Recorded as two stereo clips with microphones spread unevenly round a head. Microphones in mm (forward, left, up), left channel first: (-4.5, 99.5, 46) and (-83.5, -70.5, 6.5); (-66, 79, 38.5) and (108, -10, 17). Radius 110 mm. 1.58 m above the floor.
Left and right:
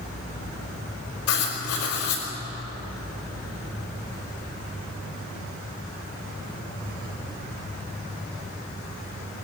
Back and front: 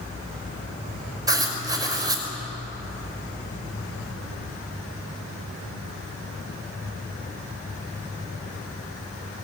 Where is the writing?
45° left, 5.5 m.